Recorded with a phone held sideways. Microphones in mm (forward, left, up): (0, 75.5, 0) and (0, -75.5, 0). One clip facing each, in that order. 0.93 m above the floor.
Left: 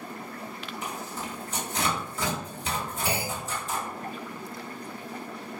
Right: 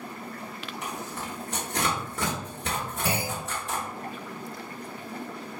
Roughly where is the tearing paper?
Right.